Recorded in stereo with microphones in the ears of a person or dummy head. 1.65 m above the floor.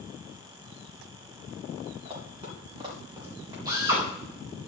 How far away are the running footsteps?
About 6.5 m.